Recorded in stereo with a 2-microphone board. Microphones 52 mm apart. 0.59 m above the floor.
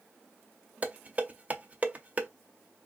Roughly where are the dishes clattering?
Right.